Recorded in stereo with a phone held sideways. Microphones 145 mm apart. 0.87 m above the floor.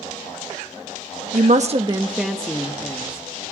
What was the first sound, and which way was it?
A woman speaking, 65° right (ahead or behind).